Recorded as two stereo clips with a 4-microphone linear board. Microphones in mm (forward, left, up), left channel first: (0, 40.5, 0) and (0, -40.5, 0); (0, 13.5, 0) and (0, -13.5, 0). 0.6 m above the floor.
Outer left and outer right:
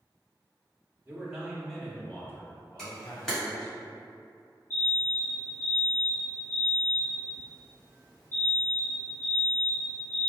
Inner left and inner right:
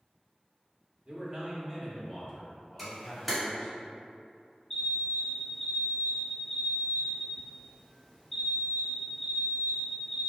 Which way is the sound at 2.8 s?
10° left (ahead or behind).